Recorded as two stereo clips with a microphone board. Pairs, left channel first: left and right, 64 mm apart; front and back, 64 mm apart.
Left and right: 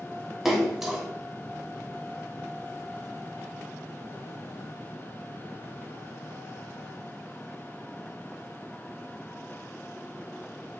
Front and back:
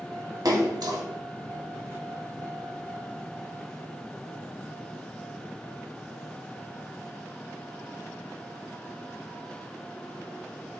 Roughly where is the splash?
Behind.